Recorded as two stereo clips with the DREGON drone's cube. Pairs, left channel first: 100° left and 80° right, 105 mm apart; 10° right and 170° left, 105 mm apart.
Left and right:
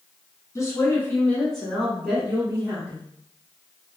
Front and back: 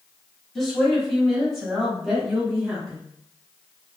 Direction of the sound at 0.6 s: 75° left.